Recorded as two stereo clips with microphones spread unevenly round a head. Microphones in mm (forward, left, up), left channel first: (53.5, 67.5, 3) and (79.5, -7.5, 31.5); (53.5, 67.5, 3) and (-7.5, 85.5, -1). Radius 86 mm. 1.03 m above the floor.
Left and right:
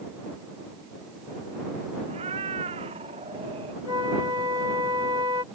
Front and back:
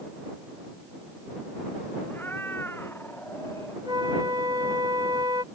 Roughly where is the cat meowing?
Right.